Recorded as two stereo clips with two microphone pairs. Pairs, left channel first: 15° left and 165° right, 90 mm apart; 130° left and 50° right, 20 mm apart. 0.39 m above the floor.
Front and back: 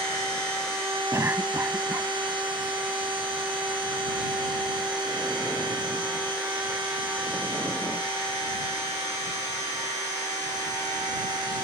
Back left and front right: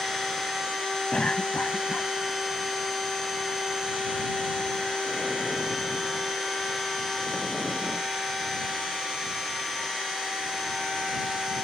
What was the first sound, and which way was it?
A cough, 140° left.